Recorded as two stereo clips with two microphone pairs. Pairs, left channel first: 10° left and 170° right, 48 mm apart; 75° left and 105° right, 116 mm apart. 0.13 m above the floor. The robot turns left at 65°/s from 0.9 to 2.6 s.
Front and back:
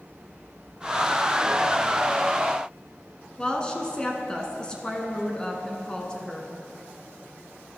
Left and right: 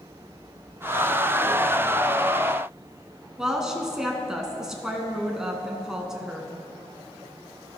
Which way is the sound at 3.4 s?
25° right.